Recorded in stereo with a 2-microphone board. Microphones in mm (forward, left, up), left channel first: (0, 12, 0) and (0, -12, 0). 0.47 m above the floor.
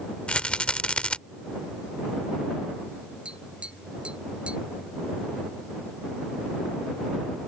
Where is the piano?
I don't hear a piano.